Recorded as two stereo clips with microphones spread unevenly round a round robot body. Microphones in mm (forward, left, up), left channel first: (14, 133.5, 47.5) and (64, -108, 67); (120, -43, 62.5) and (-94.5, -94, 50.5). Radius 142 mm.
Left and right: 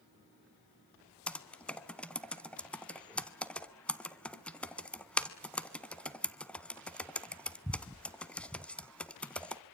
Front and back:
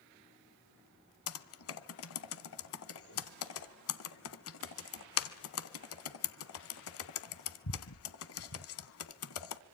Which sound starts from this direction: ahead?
Typing on a keyboard, at 1.3 s.